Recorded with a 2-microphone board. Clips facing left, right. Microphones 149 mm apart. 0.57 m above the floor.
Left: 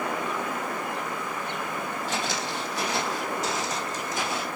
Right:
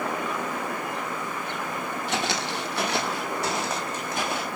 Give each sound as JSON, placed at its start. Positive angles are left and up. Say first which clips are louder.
{"t": 2.1, "sound": "footsteps", "louder": "right 4 dB", "side_deg": -70, "distance_m": 1.4}